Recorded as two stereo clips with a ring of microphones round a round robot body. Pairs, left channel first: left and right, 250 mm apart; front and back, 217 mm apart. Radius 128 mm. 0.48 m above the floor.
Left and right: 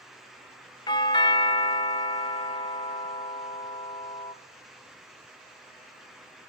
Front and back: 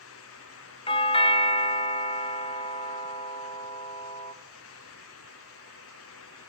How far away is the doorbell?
About 1.2 m.